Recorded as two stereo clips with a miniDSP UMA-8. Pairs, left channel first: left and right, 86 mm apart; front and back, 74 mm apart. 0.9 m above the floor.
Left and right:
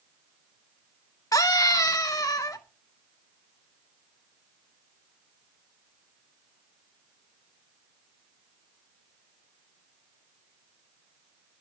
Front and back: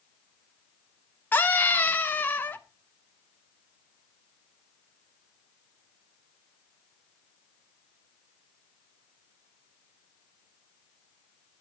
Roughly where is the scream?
Ahead left.